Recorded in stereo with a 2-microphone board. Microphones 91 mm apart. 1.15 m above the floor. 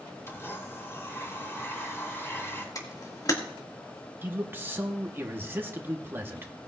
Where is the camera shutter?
40° left (ahead or behind), 2 m.